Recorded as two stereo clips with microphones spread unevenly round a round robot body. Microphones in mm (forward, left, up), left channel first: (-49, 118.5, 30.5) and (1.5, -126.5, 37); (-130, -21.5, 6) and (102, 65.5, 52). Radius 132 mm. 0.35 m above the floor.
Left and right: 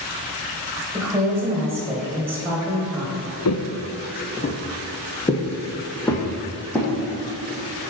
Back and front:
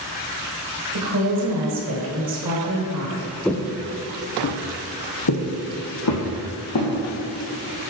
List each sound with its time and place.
0.9 s a woman speaking: 5° left, 1.5 m
3.5 s footsteps: 110° left, 0.6 m; by 6.9 s 175° right, 1.9 m